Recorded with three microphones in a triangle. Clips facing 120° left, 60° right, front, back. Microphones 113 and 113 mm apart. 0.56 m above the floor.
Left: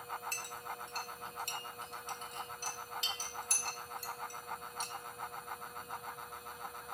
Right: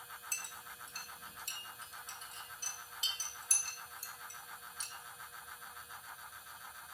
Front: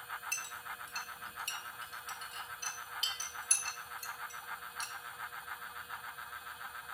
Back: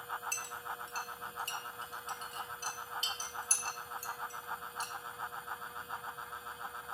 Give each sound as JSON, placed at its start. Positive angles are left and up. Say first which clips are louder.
{"t": 0.3, "sound": "a clink", "louder": "left 8 dB, back 3 dB", "azimuth_deg": 130, "distance_m": 1.2}